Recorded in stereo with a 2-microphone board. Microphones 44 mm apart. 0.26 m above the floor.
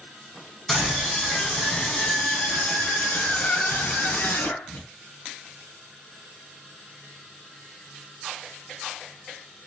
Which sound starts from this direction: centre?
A scream, at 0.7 s.